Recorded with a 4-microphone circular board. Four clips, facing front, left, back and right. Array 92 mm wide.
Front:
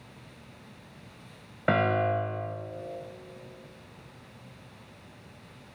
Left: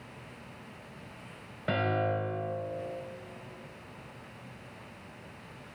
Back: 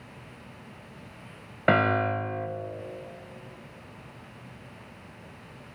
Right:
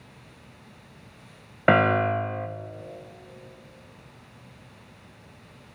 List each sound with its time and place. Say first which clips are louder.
1.7 s a piano: right 9 dB, back 2 dB; 105° right, 0.7 m